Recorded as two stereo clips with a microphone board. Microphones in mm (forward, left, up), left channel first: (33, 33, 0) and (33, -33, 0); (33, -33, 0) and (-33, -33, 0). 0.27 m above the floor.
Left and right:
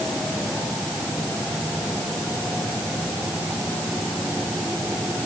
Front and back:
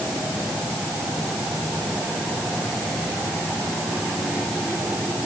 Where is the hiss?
I don't hear a hiss.